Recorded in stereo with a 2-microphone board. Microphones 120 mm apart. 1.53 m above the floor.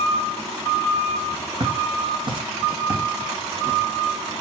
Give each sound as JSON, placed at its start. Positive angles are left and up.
{"t": 1.6, "sound": "footsteps", "side_deg": -45, "distance_m": 4.5}